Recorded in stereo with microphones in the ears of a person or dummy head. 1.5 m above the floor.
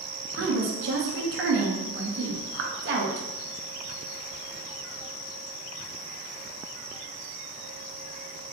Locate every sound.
0.3 s a woman speaking: 65° right (ahead or behind), 1.2 m